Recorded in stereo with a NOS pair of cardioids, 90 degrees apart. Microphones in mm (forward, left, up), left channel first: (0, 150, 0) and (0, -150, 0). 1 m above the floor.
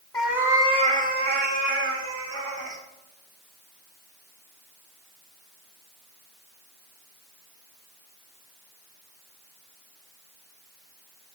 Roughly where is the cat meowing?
Ahead.